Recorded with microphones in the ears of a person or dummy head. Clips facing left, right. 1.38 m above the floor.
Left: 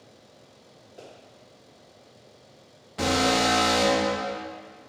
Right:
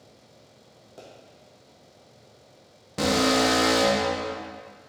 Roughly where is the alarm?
Right.